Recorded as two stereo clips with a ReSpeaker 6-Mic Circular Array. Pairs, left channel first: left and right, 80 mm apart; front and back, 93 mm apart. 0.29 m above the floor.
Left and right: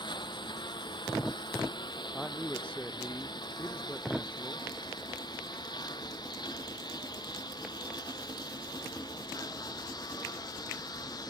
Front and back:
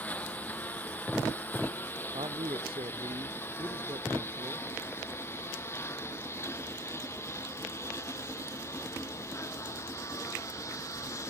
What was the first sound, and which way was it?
A lawn mower, 75° left.